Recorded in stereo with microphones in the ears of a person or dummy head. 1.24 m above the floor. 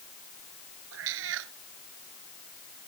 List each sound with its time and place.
0.9 s a cat meowing: 70° right (ahead or behind)